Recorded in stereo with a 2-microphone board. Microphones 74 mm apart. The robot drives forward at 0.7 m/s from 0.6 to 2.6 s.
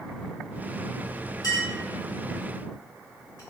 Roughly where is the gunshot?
No gunshot in this recording.